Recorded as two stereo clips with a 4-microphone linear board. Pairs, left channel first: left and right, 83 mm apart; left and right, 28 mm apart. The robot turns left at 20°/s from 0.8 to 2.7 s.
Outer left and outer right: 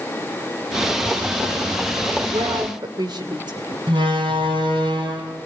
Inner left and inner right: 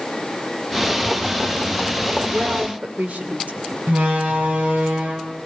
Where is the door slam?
75° right (ahead or behind), 4.5 m.